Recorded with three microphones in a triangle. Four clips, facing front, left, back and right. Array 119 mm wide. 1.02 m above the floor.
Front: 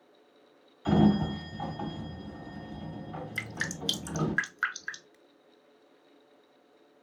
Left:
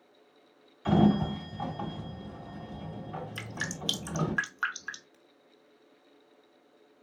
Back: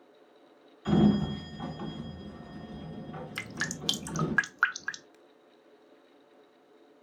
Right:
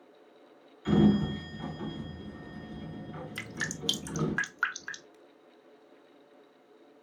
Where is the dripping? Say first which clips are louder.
Even, even; straight behind, 0.8 m.